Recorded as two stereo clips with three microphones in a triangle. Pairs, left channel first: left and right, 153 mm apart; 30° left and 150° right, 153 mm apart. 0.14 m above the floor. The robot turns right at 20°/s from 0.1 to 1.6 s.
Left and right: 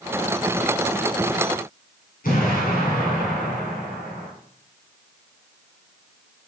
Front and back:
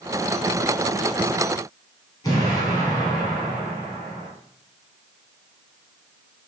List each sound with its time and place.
2.2 s an explosion: 90° left, 2 m